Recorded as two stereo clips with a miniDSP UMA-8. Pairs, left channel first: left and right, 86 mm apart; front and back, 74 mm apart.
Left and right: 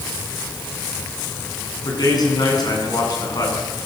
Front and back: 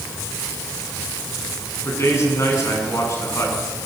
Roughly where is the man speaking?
Ahead left.